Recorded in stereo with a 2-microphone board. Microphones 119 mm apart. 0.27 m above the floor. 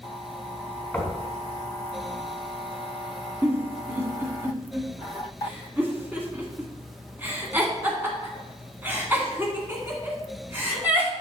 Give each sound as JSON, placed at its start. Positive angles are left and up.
{"t": 0.9, "sound": "knocking", "side_deg": 10, "distance_m": 1.9}
{"t": 3.4, "sound": "a giggle", "side_deg": -20, "distance_m": 2.0}